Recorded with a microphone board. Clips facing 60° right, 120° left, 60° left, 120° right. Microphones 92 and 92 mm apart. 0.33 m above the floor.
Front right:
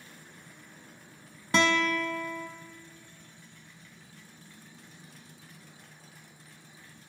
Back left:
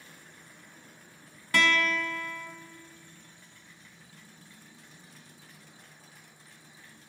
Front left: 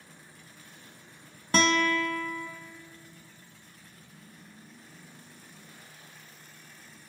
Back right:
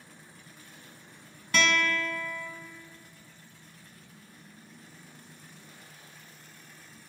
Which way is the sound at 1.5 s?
5° left.